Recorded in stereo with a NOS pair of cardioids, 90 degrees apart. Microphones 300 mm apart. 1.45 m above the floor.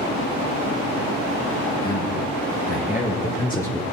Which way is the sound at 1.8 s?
30° left.